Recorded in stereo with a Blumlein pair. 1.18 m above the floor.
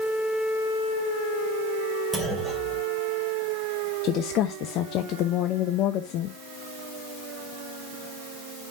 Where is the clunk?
5° right, 3 m.